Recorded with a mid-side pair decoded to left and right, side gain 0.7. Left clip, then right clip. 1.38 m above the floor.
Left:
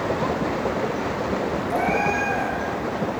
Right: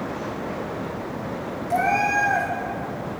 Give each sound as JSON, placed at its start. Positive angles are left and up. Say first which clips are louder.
{"t": 1.7, "sound": "a cat meowing", "louder": "right 3 dB", "azimuth_deg": -25, "distance_m": 6.0}